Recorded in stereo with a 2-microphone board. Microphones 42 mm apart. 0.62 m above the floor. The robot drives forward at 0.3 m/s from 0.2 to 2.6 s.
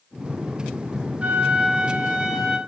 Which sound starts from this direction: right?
A flute, at 1.2 s.